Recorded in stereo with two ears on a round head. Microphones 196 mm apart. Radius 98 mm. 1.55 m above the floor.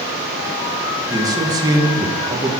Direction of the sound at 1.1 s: 15° right (ahead or behind).